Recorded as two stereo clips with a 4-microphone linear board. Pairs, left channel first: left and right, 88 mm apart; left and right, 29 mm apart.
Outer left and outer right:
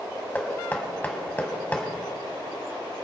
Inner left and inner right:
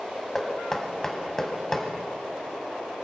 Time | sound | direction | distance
0.3 | knocking | 20° left (ahead or behind) | 1.7 m